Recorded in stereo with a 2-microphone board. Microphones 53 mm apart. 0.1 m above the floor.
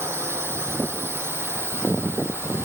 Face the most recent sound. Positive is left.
turn(degrees=-50)  # may be behind; listen again after turning